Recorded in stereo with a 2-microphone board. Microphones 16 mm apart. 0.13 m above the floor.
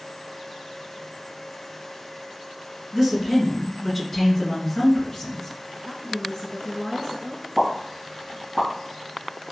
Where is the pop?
5° right (ahead or behind), 1.7 m.